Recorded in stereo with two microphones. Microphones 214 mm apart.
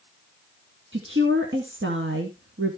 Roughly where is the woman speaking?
Right.